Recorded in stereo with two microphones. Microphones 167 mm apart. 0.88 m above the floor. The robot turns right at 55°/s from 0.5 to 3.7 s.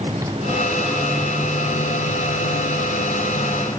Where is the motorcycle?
20° right; by 3.8 s 160° left.